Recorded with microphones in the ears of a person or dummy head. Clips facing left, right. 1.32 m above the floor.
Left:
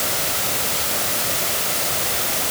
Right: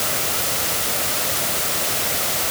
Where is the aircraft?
No aircraft in this recording.